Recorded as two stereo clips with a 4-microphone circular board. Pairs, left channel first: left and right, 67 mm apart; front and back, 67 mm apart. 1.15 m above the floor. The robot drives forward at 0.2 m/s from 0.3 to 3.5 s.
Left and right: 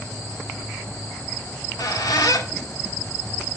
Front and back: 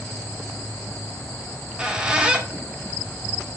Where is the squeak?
105° left, 1.8 m; by 3.5 s 115° left, 1.9 m.